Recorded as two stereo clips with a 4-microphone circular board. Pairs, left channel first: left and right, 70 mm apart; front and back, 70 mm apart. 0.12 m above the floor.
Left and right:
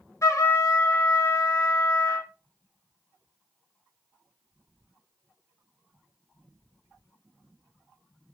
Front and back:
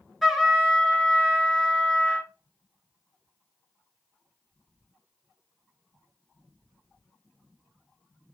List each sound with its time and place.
0.2 s a trumpet: 90° left, 0.7 m